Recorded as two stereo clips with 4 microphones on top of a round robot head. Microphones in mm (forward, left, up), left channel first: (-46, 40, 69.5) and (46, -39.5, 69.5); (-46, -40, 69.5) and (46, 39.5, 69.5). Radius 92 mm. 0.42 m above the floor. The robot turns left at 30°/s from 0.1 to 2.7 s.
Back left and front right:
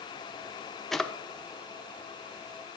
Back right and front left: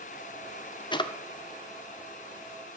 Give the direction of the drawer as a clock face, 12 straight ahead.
4 o'clock.